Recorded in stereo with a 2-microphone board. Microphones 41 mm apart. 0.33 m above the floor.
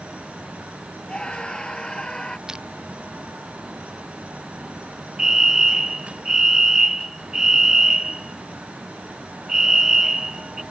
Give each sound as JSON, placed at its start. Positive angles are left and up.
{"t": 1.1, "sound": "a scream", "side_deg": 20}
{"t": 2.5, "sound": "crushing", "side_deg": -15}
{"t": 5.2, "sound": "a fire alarm", "side_deg": -10}